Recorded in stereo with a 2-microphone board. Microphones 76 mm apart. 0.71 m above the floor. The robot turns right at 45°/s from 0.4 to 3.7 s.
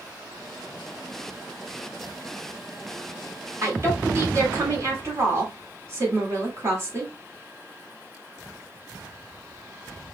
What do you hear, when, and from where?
3.6 s a woman speaking: 40° right (ahead or behind), 1.7 m; by 7.1 s 35° right (ahead or behind), 1.7 m